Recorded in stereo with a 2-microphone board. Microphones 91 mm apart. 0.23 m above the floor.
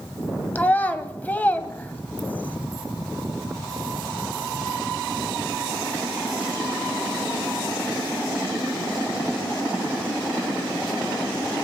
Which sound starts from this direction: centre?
A child speaking, at 0.6 s.